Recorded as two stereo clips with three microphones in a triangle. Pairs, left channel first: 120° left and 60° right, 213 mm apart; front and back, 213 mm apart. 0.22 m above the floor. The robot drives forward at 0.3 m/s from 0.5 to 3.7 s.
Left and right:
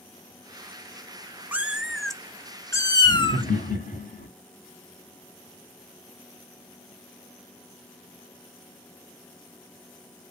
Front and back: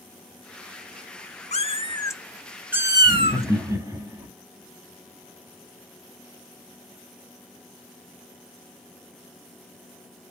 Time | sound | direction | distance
1.5 | a cat meowing | 15° left | 0.6 m
3.0 | laughter | 100° left | 1.4 m